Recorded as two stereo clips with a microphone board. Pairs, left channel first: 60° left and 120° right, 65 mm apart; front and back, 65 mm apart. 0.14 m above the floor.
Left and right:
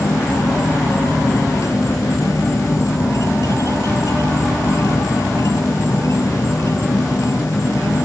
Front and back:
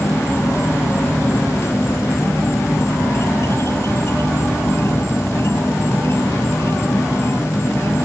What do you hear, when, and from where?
0.0 s an insect: 35° left